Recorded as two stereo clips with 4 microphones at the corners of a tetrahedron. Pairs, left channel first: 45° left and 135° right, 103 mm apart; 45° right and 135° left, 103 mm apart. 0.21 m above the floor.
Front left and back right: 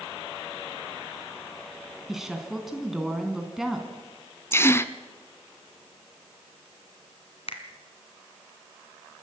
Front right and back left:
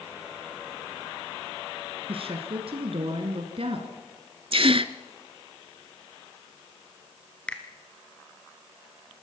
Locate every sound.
2.1 s a woman speaking: 140° left, 2.5 m
4.5 s a gasp: 110° left, 0.7 m
7.5 s a finger snap: 35° left, 2 m